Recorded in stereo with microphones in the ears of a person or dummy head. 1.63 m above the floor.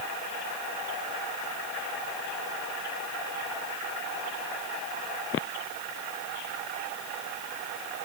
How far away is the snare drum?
I don't hear a snare drum.